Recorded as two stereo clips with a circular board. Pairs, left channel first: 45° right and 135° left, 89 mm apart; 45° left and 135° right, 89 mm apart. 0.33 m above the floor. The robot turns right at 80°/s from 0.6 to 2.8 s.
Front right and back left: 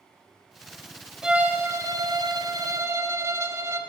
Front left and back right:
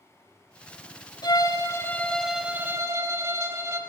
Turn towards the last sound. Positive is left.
turn(degrees=180)